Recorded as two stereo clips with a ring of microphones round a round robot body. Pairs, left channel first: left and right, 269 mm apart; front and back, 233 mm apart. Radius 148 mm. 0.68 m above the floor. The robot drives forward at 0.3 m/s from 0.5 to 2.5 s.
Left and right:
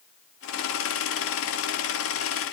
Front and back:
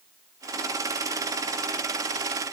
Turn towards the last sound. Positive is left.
No sound to turn to.